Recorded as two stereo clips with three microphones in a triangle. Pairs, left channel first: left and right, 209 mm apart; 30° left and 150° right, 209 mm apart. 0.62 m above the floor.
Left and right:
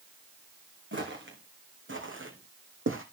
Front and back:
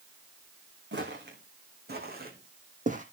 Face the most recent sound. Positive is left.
turn(degrees=-95)